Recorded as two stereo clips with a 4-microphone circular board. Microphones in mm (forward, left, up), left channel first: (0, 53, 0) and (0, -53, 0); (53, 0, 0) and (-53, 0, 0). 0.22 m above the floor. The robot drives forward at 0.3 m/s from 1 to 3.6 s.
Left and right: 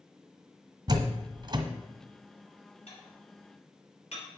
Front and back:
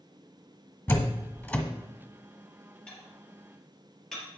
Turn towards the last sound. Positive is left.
turn(degrees=85)